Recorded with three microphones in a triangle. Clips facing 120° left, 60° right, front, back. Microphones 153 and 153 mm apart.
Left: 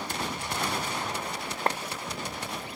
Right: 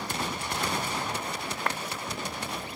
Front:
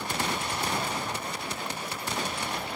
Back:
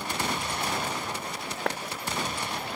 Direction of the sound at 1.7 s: Straight behind.